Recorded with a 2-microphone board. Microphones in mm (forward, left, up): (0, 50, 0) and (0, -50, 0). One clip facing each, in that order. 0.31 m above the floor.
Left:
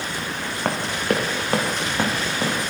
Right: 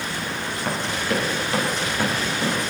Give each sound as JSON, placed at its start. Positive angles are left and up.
{"t": 0.7, "sound": "running footsteps", "side_deg": 50, "distance_m": 2.0}